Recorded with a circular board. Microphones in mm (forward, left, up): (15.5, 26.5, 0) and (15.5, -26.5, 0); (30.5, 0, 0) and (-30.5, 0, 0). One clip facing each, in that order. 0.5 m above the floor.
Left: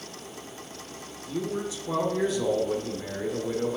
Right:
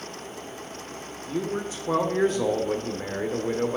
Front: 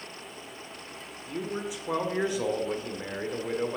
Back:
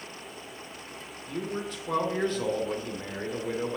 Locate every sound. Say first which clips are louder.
1.3 s a man speaking: right 2 dB, even; 75° right, 1.4 m